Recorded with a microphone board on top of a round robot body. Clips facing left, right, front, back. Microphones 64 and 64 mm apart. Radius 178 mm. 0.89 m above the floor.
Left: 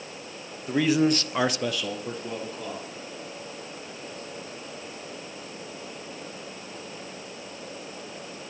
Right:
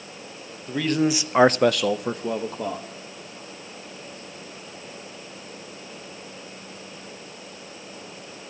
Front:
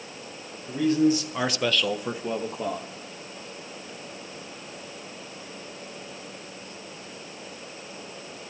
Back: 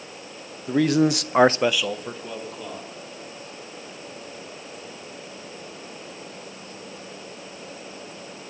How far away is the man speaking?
About 0.9 m.